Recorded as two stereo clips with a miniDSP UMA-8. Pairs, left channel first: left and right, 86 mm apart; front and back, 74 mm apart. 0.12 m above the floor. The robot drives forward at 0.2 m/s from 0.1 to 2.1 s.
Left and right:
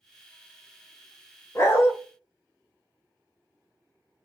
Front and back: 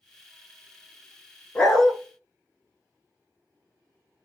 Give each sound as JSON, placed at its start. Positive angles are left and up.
{"t": 1.6, "sound": "a dog barking", "azimuth_deg": 65, "distance_m": 0.6}